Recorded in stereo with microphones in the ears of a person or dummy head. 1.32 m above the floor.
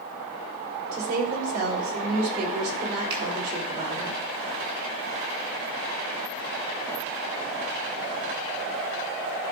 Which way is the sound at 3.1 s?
60° right (ahead or behind).